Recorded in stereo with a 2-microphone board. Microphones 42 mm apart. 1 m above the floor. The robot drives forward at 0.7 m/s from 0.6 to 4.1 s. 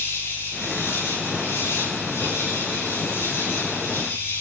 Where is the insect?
70° left (ahead or behind), 10 m; by 4.4 s 85° left, 9.5 m.